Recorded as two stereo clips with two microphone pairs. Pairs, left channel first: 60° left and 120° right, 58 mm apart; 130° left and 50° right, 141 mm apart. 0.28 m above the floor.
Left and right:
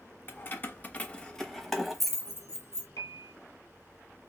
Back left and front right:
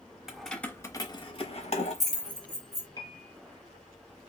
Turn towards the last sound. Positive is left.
turn(degrees=70)